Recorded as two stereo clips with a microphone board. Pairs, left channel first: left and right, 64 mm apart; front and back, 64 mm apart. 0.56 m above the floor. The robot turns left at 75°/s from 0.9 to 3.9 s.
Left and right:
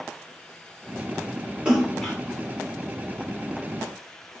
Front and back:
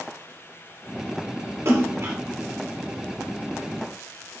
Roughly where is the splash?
Behind.